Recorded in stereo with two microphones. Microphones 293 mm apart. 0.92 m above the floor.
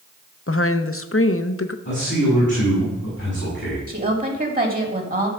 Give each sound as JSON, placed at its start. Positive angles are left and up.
{"t": 0.5, "sound": "a woman speaking", "side_deg": 50, "distance_m": 0.8}
{"t": 1.9, "sound": "a man speaking", "side_deg": 40, "distance_m": 6.0}
{"t": 3.9, "sound": "a woman speaking", "side_deg": -30, "distance_m": 2.5}